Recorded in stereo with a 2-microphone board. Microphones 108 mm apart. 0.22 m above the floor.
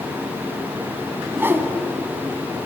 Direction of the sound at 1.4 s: 20° right (ahead or behind).